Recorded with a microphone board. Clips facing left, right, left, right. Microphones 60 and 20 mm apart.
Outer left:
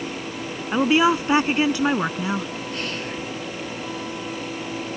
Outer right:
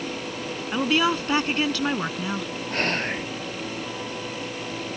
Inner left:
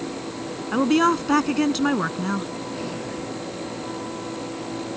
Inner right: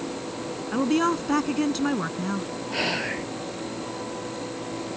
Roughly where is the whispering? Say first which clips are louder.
Outer right 7 dB, inner right 4 dB; right.